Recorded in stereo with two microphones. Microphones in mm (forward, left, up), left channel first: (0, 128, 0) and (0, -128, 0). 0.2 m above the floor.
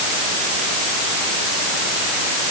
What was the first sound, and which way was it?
Only background noise.